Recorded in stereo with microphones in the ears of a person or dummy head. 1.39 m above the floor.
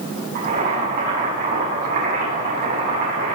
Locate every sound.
0.3 s boiling: 55° right (ahead or behind), 7 m